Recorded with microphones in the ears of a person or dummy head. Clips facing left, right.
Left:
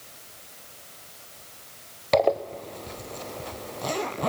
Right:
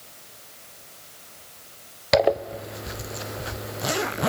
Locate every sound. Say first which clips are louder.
2.1 s a zipper: right 1 dB; 15° right (ahead or behind), 0.8 m